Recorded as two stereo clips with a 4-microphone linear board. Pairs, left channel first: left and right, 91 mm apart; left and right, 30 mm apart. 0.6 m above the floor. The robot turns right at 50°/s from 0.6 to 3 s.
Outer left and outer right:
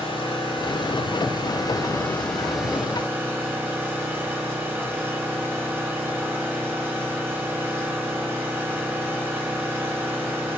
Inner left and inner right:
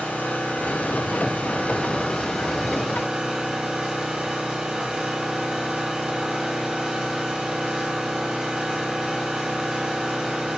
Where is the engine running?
85° left, 7.5 m; by 10.6 s 155° right, 7.5 m.